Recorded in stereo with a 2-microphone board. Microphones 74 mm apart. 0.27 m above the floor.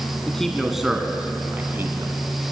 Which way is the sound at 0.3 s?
10° left (ahead or behind).